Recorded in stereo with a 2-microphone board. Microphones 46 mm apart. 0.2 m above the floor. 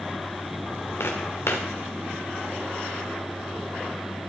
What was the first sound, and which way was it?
Footsteps, 65° left (ahead or behind).